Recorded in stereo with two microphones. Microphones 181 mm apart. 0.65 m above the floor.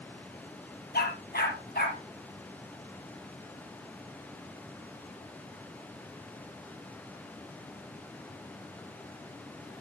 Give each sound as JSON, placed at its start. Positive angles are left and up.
{"t": 0.9, "sound": "a dog barking", "side_deg": 60, "distance_m": 4.5}